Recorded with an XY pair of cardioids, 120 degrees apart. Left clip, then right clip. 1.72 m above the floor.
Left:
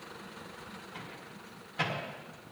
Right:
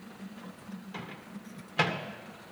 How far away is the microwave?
About 2.0 m.